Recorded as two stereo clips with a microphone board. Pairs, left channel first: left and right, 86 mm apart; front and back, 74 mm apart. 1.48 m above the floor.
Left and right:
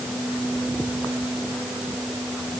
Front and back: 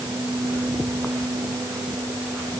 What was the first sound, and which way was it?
Only background noise.